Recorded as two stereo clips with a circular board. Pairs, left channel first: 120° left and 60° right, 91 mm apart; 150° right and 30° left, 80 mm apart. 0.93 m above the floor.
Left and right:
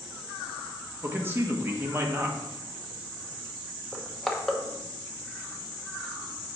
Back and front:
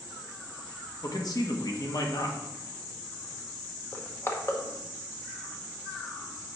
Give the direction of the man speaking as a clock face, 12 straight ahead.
4 o'clock.